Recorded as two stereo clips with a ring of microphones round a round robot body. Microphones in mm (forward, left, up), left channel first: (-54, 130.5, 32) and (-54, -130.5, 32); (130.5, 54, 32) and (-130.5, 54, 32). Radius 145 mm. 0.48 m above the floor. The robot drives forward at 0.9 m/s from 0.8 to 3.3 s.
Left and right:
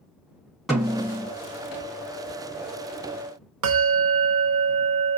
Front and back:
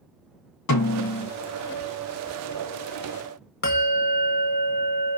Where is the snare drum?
Straight ahead, 2.5 m.